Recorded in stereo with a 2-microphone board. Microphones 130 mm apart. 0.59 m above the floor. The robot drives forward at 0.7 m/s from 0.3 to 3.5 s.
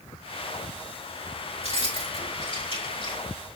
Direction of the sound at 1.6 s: 50° left (ahead or behind).